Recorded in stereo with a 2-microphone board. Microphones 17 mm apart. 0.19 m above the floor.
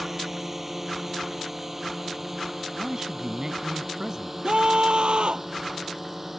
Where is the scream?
70° right (ahead or behind).